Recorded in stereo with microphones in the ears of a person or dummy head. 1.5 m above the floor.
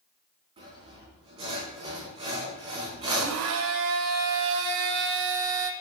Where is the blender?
65° right (ahead or behind), 0.8 m.